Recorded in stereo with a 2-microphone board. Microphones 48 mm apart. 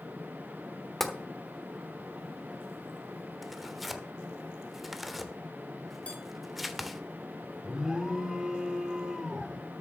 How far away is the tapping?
About 1.1 m.